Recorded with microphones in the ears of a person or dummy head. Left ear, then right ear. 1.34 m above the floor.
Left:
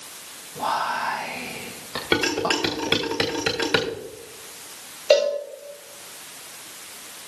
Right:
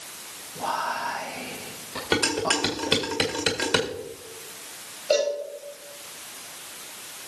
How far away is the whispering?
About 1.6 m.